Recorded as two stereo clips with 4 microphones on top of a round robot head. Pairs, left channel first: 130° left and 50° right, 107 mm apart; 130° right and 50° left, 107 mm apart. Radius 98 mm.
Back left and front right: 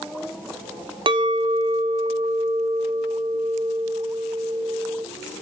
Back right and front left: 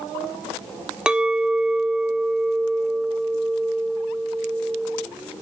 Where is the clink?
25° right, 0.9 m.